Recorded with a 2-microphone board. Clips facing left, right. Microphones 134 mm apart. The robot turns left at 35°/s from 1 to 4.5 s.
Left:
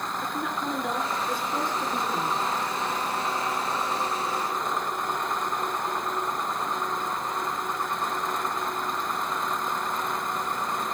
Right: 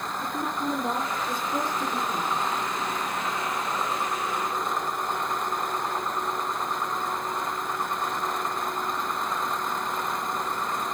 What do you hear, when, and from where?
0.2 s a woman speaking: 145° right, 3 m; by 2.4 s 165° left, 3 m